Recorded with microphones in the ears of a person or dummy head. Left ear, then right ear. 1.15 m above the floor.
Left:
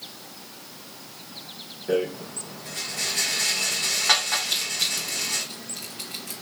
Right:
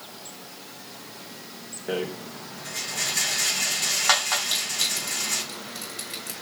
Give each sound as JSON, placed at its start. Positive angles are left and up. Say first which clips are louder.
{"t": 1.9, "sound": "a rattle", "louder": "left 4 dB", "side_deg": -35, "distance_m": 1.4}
{"t": 4.4, "sound": "crushing", "louder": "even", "side_deg": -60, "distance_m": 1.9}